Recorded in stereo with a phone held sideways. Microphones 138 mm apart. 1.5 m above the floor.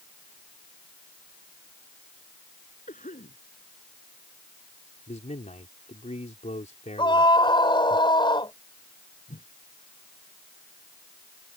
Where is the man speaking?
60° left (ahead or behind).